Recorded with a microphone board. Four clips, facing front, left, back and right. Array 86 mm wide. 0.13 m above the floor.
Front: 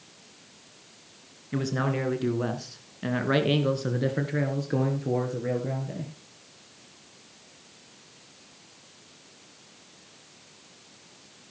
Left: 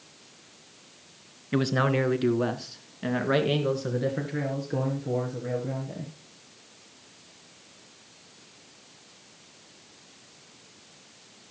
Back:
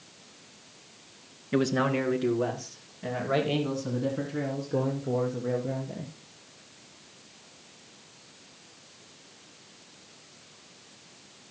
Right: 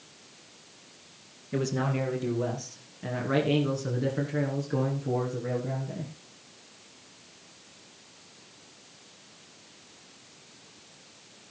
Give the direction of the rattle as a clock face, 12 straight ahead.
No rattle in this recording.